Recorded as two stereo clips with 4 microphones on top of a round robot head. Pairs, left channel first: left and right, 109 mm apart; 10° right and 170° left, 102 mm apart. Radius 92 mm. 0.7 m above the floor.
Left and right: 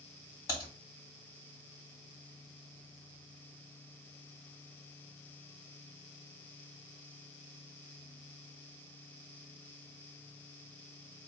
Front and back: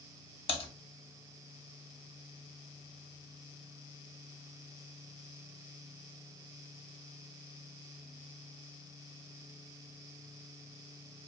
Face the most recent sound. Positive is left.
turn(degrees=20)